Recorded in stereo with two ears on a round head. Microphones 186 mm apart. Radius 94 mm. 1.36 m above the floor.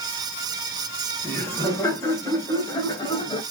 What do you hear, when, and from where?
1.2 s laughter: 15° left (ahead or behind), 3.5 m; by 3.4 s 25° left (ahead or behind), 2.0 m